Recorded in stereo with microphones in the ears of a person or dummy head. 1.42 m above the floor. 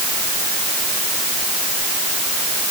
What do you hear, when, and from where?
Only background noise.